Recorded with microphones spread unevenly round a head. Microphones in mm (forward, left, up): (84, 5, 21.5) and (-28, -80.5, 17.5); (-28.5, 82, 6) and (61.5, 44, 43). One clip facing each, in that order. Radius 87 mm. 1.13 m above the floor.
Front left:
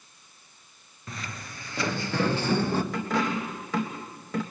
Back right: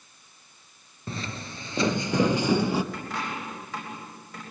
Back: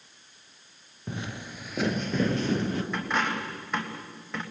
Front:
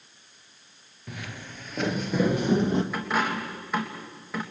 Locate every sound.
1.1 s footsteps: 120° right, 1.2 m; by 2.8 s 65° right, 1.6 m
2.9 s a dropped coin: 50° left, 3 m